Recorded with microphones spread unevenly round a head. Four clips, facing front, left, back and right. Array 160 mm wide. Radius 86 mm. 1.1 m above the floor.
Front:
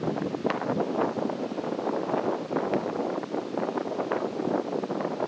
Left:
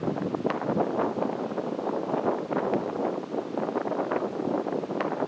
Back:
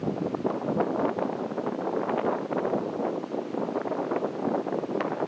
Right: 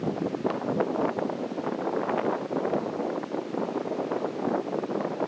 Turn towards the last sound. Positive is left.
No sound to turn to.